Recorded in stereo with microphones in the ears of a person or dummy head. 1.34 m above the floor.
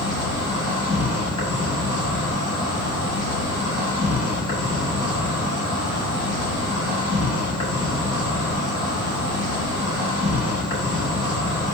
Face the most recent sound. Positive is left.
turn(degrees=20)  # may be behind; listen again after turning